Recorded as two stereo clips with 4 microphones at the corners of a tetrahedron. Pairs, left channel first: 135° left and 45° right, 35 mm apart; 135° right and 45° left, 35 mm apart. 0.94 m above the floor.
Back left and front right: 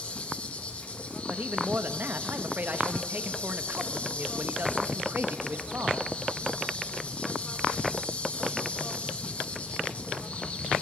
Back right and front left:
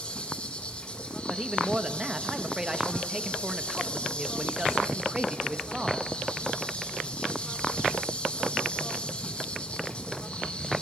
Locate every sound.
0.0 s an insect: 175° left, 1.4 m
1.3 s a man speaking: 25° right, 1.1 m